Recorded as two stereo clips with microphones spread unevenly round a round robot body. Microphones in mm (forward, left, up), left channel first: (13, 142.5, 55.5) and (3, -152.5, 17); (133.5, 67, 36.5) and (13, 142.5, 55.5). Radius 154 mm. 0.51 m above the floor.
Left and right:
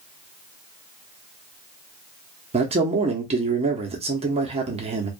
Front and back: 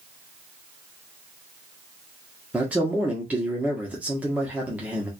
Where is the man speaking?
125° right, 0.8 m.